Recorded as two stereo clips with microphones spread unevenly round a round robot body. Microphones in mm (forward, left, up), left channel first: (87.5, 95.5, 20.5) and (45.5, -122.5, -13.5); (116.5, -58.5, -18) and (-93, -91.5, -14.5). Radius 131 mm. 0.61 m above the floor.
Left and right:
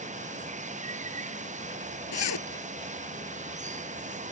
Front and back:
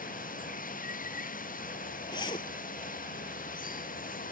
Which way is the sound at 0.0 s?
40° right.